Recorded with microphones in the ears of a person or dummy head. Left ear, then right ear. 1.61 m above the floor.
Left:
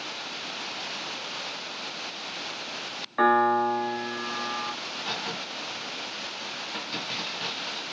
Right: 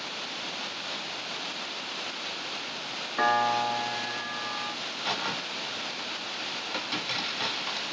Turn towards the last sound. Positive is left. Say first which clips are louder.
# right 1 dB
turn(degrees=-85)